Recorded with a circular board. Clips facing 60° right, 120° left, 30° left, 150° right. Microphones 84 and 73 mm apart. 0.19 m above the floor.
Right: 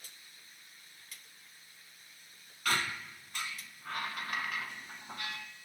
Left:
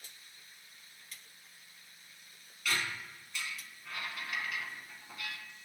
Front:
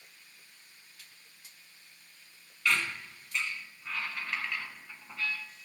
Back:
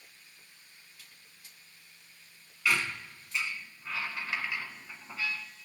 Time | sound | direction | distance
2.6 | a squeak | 65° right | 0.7 m